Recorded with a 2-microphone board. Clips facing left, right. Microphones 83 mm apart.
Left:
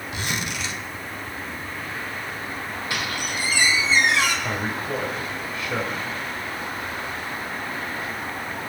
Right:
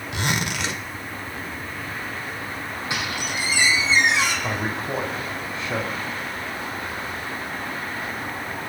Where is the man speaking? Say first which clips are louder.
Even; 30° right (ahead or behind), 5.5 m.